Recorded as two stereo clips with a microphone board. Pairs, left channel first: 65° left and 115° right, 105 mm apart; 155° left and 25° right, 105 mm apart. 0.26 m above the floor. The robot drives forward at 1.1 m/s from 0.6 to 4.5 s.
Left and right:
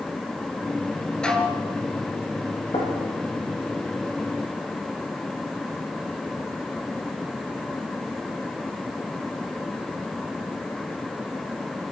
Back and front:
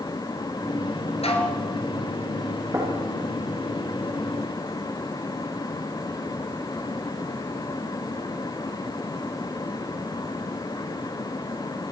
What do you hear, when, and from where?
1.2 s dishes clattering: 150° left, 3 m; by 1.6 s 155° left, 3.5 m
2.7 s knocking: 40° left, 9 m